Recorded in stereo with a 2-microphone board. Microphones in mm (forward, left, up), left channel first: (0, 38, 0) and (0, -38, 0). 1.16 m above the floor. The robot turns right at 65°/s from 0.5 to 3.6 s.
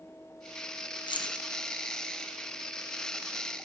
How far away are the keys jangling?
About 1.1 m.